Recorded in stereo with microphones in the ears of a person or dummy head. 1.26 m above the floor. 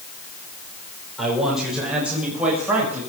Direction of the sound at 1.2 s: Centre (ahead or behind).